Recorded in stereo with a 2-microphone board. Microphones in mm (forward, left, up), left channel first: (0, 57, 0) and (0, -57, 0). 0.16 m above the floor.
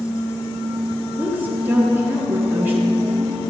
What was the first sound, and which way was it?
A woman speaking, 20° right (ahead or behind).